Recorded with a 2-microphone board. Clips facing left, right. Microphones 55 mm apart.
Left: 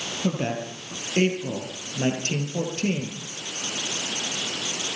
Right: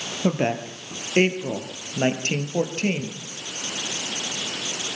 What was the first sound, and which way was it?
A woman speaking, 45° right (ahead or behind).